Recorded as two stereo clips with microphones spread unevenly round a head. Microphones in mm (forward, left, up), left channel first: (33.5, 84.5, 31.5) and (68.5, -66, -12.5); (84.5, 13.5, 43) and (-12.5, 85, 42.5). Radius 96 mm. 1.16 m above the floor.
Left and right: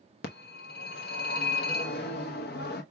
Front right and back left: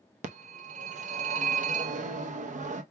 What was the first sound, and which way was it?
A phone ringing, 125° left.